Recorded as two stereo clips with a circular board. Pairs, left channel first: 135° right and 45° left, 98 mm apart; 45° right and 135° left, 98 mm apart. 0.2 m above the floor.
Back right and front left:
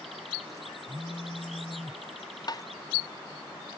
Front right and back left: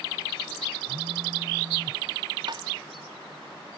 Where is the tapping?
175° left.